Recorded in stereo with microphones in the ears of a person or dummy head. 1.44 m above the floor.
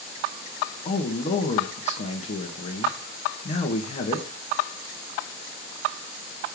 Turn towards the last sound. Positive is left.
turn(degrees=40)  # may be behind; listen again after turning